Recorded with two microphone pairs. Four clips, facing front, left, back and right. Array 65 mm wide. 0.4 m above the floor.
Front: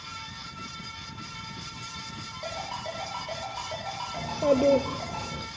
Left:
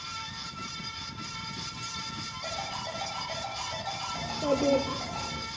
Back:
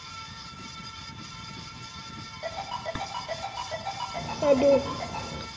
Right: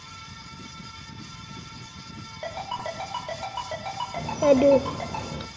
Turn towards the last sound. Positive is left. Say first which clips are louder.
# right 10 dB, back 1 dB
turn(degrees=-100)